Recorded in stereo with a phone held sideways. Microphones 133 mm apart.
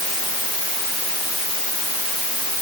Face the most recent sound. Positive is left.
No sound to turn to.